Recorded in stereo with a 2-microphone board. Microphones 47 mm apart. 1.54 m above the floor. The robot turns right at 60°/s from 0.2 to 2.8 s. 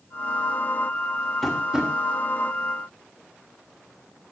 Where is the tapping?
5° left (ahead or behind), 3.5 m; by 1.9 s 25° right (ahead or behind), 3.5 m.